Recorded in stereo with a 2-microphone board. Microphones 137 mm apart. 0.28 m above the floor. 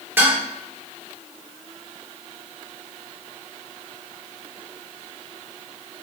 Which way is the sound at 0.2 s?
15° right (ahead or behind).